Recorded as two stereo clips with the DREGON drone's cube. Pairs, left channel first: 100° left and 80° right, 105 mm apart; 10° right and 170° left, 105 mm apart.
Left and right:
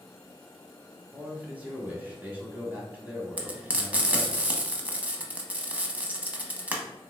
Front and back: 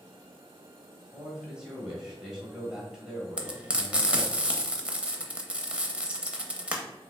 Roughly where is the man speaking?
Behind right.